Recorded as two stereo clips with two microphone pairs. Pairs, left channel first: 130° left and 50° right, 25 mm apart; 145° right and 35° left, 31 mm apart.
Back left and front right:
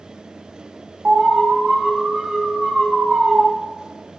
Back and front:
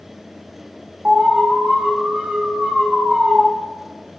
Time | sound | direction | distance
1.1 | an alarm | 20° right | 5 m